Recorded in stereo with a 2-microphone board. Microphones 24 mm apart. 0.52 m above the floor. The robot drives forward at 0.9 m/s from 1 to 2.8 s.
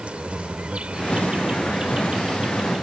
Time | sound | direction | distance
0.0 | an insect | 55° right (ahead or behind) | ?